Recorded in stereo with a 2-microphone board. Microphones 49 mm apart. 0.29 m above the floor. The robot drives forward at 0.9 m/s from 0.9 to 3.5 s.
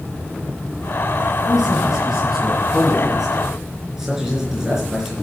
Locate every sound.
1.4 s a man speaking: 5° right (ahead or behind), 5.5 m; by 5.1 s 10° right (ahead or behind), 3.5 m